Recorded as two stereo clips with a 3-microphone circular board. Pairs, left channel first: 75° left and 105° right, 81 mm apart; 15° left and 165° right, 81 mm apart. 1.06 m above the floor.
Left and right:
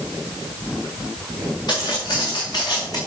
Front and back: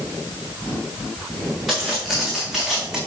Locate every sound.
1.7 s footsteps: 105° left, 5 m; by 3.0 s 115° left, 4 m